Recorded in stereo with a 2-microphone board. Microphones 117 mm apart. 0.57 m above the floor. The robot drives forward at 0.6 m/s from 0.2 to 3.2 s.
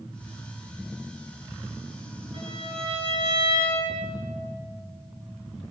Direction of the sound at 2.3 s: 50° right (ahead or behind).